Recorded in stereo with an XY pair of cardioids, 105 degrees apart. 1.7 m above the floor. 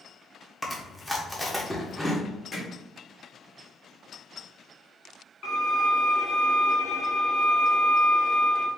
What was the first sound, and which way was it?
Chewing, 10° left.